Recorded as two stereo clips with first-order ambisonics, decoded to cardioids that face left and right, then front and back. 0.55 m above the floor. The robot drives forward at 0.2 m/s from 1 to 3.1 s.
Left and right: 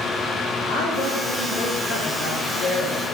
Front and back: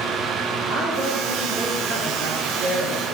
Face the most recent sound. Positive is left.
turn(degrees=130)